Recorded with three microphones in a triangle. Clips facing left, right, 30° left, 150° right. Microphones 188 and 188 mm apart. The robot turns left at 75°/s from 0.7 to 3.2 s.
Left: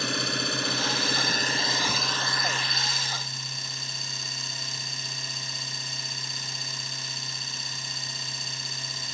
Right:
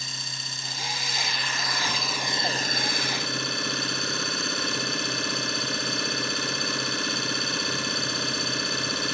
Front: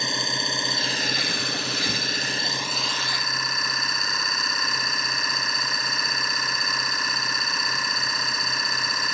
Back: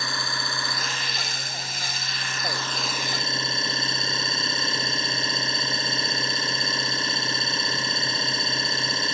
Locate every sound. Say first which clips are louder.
0.0 s an engine running: left 14 dB, front 3 dB; 100° left; by 9.1 s 90° right